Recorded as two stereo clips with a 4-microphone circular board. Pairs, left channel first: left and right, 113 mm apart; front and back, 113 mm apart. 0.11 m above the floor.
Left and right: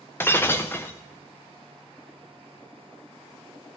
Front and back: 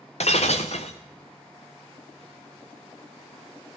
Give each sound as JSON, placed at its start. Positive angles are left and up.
{"t": 0.2, "sound": "breaking glass", "azimuth_deg": 20, "distance_m": 0.9}